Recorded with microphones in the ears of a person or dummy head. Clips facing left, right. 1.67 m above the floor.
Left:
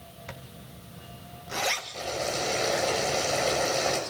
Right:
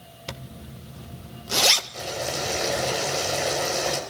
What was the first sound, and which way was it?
A zipper, 55° right (ahead or behind).